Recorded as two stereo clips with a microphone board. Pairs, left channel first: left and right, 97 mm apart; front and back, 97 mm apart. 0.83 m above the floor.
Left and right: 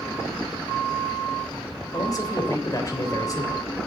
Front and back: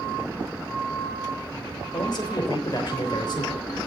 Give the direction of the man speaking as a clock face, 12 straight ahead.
11 o'clock.